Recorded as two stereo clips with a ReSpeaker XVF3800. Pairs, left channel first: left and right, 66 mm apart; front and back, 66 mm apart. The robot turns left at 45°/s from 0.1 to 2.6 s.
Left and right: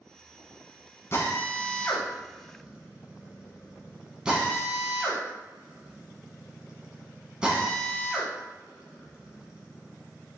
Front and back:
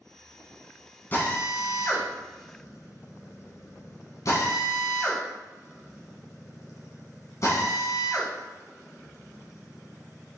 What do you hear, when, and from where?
1.1 s a drill: 50° left, 1.1 m; by 10.4 s 15° right, 1.1 m